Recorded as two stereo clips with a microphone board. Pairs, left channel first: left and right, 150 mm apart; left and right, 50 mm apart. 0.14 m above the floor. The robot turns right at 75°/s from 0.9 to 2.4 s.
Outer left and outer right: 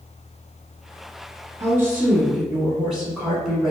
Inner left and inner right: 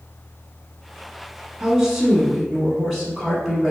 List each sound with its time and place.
1.6 s a woman speaking: 20° right (ahead or behind), 1.1 m; by 3.7 s 5° right (ahead or behind), 1.1 m